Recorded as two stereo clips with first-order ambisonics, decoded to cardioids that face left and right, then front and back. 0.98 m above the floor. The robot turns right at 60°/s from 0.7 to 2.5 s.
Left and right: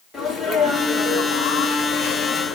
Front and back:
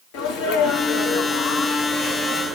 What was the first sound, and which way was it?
A sneeze, 10° left.